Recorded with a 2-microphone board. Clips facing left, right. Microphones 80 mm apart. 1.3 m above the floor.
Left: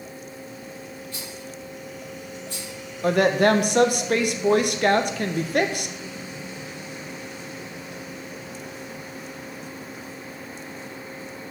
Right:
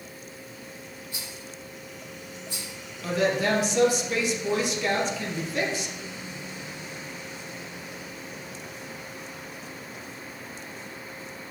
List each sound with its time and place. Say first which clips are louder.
1.1 s a rattle: left 4 dB; 15° right (ahead or behind), 4 m
3.0 s a woman speaking: left 6 dB; 60° left (ahead or behind), 0.7 m